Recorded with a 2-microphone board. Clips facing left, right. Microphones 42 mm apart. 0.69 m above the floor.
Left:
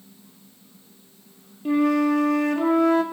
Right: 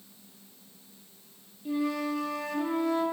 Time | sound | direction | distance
1.6 | a flute | 60° left (ahead or behind) | 1.3 m